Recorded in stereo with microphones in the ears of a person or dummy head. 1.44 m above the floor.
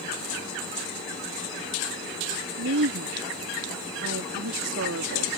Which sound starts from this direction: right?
A woman speaking, at 2.6 s.